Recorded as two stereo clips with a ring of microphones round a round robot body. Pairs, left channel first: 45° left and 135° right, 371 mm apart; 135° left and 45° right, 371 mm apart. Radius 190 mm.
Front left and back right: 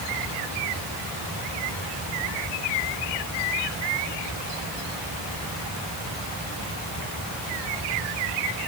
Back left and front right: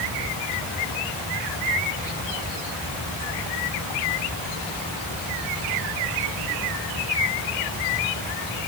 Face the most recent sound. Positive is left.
No sound to turn to.